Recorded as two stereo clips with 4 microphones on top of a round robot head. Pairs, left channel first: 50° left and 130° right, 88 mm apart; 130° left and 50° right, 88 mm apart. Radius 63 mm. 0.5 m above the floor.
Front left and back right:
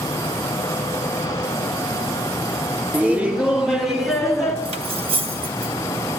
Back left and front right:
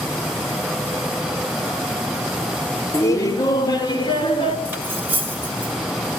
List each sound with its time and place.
2.9 s laughter: 170° left, 1.3 m; by 4.5 s 140° left, 1.8 m
4.7 s cutlery clinking: 125° right, 1.8 m